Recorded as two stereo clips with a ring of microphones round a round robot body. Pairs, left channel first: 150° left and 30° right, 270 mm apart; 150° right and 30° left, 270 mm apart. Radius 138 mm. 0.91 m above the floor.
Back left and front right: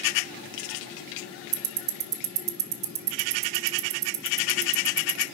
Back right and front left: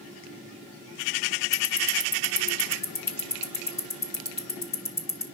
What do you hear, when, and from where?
1.5 s ticking: 70° right, 0.8 m